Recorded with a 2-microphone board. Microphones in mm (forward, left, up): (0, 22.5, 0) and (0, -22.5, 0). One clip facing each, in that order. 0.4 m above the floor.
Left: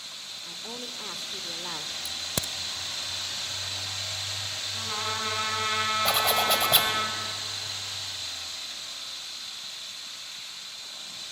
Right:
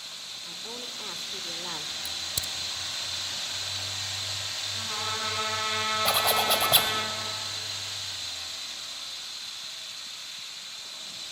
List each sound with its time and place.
0.5 s a woman speaking: 5° left (ahead or behind), 1.0 m
2.0 s a crack: 55° left (ahead or behind), 0.6 m
4.7 s a trumpet: 10° left (ahead or behind), 4 m
6.0 s a zipper: 5° right (ahead or behind), 1.9 m